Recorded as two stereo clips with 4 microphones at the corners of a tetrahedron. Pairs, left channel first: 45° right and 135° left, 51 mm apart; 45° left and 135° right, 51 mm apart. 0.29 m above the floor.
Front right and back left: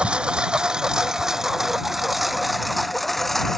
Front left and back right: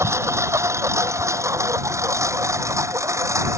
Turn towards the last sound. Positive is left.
turn(degrees=-130)